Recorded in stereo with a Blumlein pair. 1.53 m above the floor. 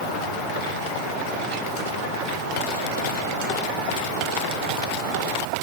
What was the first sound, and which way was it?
Only background noise.